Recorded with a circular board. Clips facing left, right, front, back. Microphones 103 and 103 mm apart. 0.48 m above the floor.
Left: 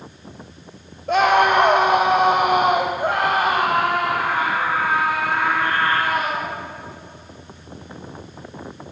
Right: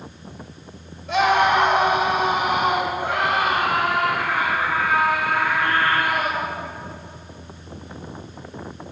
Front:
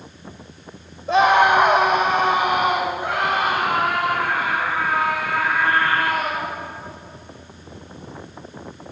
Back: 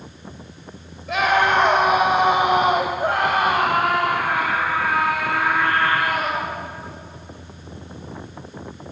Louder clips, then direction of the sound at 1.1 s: Left 2 dB, front 4 dB; 55° left.